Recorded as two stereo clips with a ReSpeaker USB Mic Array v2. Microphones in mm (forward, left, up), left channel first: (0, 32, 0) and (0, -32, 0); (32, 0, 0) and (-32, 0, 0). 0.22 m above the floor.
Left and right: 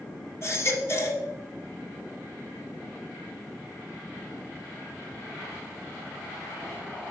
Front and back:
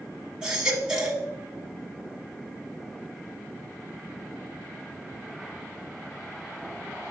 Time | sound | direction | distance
0.4 | a baby crying | 105° left | 1.2 m